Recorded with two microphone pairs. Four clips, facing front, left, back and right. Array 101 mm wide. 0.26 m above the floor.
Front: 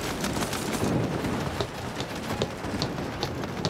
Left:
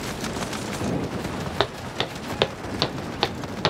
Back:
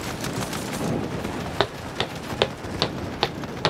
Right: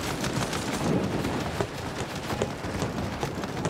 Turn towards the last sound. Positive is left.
turn(degrees=140)